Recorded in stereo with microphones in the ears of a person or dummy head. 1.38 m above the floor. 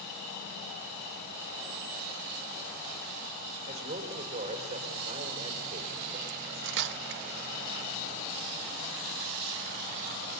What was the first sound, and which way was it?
A man speaking, 30° right (ahead or behind).